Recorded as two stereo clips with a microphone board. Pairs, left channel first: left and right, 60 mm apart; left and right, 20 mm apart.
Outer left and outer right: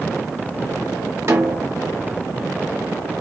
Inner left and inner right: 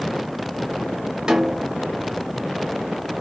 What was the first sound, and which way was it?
A snare drum, 45° right (ahead or behind).